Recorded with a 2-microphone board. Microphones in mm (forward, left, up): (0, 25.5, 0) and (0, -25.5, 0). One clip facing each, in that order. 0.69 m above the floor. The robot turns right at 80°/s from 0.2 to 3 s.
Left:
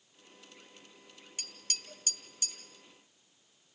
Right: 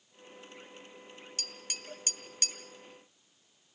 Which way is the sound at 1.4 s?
10° left (ahead or behind).